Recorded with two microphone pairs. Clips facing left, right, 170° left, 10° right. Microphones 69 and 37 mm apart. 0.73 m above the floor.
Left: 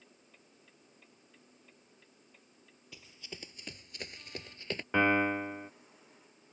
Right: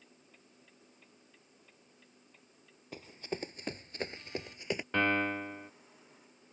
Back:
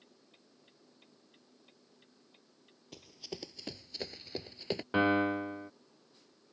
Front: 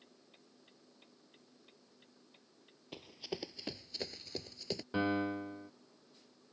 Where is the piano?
160° left.